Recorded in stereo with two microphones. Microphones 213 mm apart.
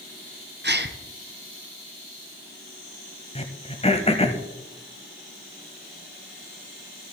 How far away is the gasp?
About 0.9 m.